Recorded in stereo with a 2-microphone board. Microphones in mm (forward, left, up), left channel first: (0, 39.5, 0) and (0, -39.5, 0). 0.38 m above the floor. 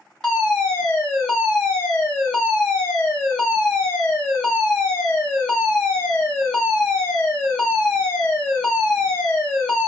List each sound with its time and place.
0.2 s a fire alarm: 10° left (ahead or behind), 1.8 m